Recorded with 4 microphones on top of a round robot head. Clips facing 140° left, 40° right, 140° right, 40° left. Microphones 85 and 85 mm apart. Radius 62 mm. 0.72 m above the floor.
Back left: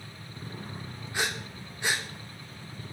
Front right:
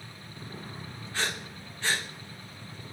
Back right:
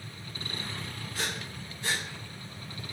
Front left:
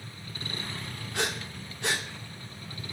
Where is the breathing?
65° left, 2 m.